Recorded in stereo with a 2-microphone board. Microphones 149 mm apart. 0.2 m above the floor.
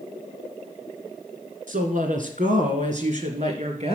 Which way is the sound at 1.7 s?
65° right (ahead or behind).